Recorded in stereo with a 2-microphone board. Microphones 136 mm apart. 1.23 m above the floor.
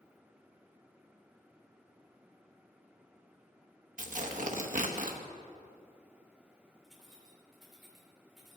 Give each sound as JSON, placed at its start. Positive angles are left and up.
{"t": 4.0, "sound": "tearing paper", "side_deg": -70, "distance_m": 0.9}
{"t": 6.8, "sound": "keys jangling", "side_deg": 0, "distance_m": 2.5}